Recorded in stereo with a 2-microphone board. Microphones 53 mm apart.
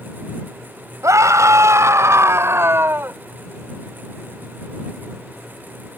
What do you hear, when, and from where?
1.0 s a scream: 70° right (ahead or behind); by 3.2 s 45° right (ahead or behind)